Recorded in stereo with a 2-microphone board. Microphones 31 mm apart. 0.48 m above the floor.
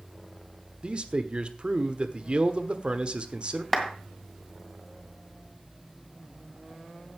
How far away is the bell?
I don't hear a bell.